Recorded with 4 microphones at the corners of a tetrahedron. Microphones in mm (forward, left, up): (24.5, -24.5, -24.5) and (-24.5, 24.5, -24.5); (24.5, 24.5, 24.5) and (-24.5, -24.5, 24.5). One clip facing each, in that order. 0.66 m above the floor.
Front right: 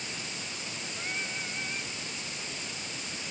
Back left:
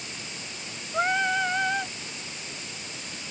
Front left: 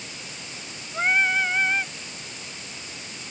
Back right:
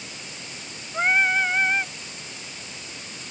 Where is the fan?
I don't hear a fan.